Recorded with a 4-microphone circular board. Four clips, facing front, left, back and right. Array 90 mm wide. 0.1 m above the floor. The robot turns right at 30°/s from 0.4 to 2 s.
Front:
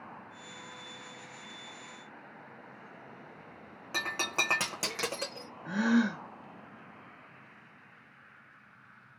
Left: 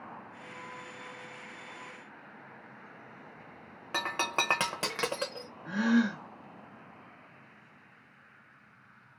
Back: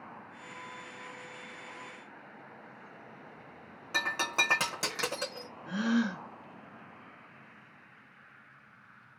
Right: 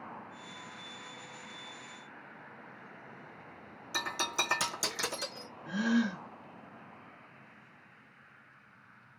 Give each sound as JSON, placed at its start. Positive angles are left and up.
{"t": 3.9, "sound": "breaking glass", "azimuth_deg": 85, "distance_m": 0.9}
{"t": 5.7, "sound": "a gasp", "azimuth_deg": 30, "distance_m": 1.3}